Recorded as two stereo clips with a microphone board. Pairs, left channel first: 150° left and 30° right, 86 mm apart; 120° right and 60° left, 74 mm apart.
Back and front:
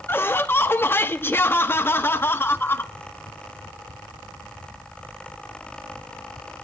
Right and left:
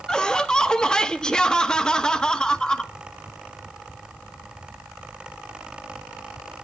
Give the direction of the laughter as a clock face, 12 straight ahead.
6 o'clock.